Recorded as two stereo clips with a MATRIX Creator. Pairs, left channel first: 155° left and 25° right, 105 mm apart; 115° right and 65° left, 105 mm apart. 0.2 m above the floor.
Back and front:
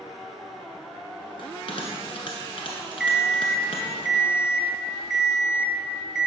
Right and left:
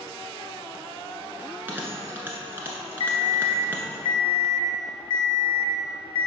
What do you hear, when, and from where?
1.4 s a bell: 135° left, 1.3 m
3.0 s an alarm clock: 105° right, 0.5 m